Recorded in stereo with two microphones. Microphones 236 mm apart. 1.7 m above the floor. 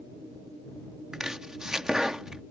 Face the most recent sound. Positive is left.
turn(degrees=-5)  # may be behind; listen again after turning